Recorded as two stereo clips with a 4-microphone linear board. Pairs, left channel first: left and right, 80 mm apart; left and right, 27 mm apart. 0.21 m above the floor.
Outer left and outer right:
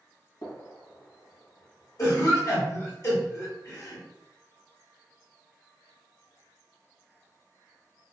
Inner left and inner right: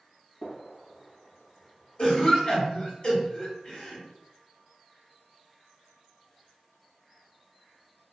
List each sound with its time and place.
0.4 s a gunshot: 45° left (ahead or behind), 1.3 m
2.0 s a cough: 40° left (ahead or behind), 2.0 m